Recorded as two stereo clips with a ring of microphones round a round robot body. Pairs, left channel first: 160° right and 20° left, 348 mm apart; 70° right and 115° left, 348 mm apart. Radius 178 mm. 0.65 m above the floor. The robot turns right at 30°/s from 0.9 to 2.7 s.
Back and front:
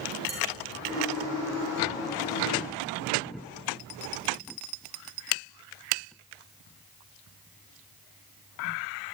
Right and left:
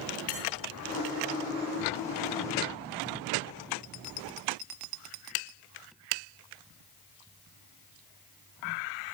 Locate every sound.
0.3 s dishes clattering: 50° right, 8 m